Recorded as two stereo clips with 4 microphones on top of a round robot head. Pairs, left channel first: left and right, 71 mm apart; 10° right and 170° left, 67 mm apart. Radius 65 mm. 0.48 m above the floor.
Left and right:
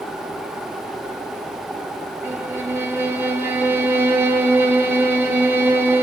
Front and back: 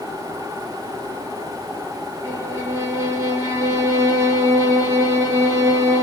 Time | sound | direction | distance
2.2 | a violin | 150° right | 3.5 m